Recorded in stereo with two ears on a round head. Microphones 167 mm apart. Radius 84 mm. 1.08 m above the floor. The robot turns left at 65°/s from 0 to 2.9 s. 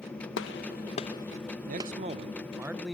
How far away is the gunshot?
About 0.7 m.